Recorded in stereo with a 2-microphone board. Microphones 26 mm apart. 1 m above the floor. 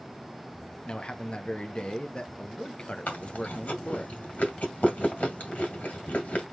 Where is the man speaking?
40° left (ahead or behind), 0.7 m.